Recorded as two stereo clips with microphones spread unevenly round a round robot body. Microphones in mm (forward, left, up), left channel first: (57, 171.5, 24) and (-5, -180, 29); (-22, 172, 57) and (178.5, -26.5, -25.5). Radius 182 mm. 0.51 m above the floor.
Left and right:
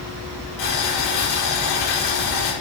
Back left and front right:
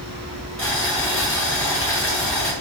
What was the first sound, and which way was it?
Boiling, 50° left.